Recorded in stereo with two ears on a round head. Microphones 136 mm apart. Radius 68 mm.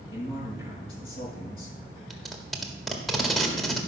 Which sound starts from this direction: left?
A man speaking, at 0.1 s.